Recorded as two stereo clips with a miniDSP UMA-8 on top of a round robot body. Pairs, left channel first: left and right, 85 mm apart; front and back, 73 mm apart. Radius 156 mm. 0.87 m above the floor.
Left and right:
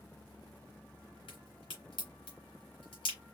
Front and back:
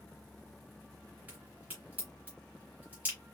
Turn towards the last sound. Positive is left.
turn(degrees=105)